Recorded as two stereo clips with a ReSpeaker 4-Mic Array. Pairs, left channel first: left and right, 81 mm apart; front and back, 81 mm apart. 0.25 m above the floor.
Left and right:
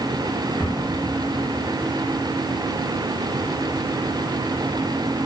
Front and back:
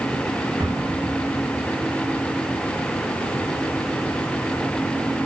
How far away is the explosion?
About 3.5 m.